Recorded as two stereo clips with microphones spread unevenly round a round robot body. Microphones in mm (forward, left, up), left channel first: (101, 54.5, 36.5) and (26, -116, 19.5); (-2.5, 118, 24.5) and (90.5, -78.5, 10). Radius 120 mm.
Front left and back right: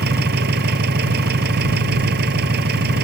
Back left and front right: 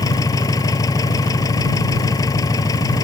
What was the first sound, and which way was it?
An engine running, 170° right.